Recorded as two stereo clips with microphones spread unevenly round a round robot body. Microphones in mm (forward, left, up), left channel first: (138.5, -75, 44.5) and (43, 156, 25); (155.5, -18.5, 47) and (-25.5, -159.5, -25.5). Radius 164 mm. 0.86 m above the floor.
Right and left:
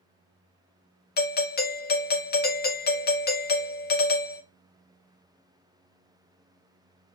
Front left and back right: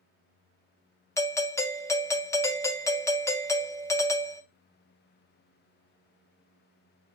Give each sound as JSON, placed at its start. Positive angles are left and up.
{"t": 1.2, "sound": "a doorbell", "azimuth_deg": -60, "distance_m": 0.8}